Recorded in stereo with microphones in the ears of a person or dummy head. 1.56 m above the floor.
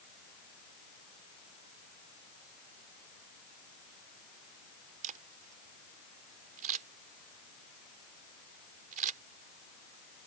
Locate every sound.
5.0 s a camera shutter: 40° right (ahead or behind)